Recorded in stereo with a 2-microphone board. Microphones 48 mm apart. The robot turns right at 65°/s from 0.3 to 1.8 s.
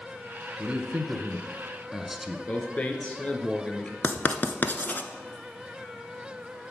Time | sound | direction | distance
0.6 | a man speaking | 25° right (ahead or behind) | 1.1 m
2.5 | a man speaking | 30° left (ahead or behind) | 2 m
4.0 | writing | 40° left (ahead or behind) | 0.8 m